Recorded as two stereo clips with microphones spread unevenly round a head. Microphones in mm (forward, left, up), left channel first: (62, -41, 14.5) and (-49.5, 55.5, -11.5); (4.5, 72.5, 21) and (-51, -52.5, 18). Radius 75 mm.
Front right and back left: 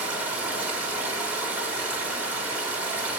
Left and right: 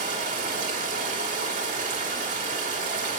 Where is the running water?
135° right, 1.2 m.